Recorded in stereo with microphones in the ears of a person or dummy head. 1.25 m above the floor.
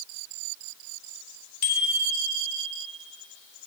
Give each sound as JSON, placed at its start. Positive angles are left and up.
{"t": 1.6, "sound": "a bicycle bell", "side_deg": 50, "distance_m": 3.0}